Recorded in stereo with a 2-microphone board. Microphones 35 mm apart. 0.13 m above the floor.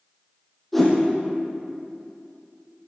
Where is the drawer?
I don't hear a drawer.